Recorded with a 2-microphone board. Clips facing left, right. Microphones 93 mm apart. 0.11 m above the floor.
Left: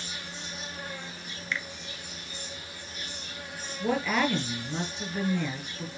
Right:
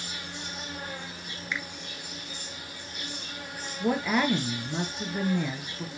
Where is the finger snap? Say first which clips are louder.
Even; 15° right (ahead or behind), 1.0 m.